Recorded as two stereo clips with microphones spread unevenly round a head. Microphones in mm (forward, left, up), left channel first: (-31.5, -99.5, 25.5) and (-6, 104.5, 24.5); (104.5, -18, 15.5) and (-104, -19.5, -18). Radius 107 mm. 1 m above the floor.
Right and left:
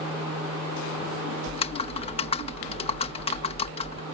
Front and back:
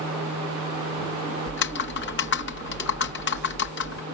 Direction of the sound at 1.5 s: 35° right.